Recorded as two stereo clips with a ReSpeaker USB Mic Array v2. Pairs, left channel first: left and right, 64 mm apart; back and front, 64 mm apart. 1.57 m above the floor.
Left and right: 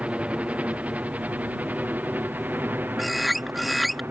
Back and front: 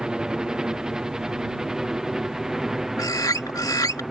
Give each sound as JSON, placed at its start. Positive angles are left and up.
{"t": 0.0, "sound": "a helicopter", "azimuth_deg": -60}
{"t": 3.0, "sound": "a bird", "azimuth_deg": 180}